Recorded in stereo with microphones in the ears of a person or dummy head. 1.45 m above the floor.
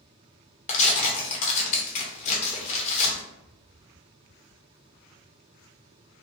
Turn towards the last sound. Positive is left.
turn(degrees=40)  # may be behind; listen again after turning